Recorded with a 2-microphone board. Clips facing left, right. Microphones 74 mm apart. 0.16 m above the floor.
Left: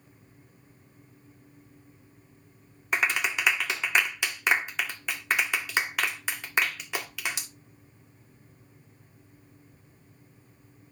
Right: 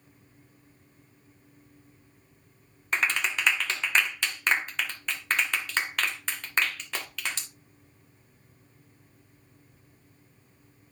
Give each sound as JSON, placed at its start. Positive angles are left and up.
{"t": 2.9, "sound": "a clap", "side_deg": 10, "distance_m": 1.7}